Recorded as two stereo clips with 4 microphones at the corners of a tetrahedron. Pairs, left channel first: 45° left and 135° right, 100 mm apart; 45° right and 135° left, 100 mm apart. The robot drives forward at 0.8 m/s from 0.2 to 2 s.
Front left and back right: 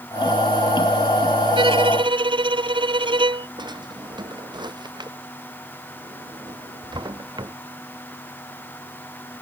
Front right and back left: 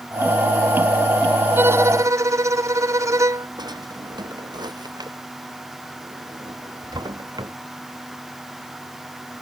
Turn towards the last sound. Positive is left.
turn(degrees=180)